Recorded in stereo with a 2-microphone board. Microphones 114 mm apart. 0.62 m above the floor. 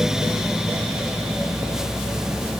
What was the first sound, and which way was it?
Only background noise.